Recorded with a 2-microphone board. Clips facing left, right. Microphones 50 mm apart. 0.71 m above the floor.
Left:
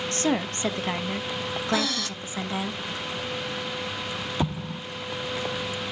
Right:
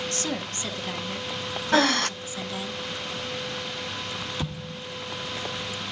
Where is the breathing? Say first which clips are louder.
Right 7 dB; 50° right (ahead or behind), 0.5 m.